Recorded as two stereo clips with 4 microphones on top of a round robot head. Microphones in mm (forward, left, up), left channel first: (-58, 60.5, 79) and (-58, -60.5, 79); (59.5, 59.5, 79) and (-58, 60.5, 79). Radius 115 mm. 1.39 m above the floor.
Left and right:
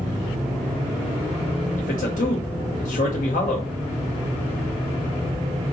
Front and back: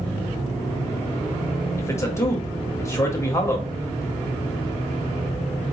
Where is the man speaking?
65° left, 1.3 m.